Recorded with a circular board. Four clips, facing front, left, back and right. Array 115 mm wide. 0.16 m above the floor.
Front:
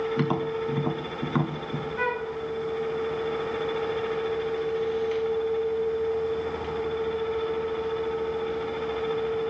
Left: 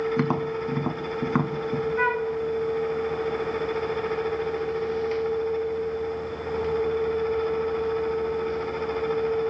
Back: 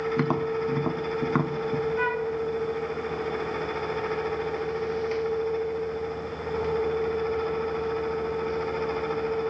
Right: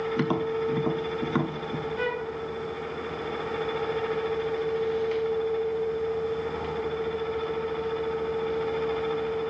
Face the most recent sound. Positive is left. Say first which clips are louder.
# left 5 dB, back 2 dB
turn(degrees=90)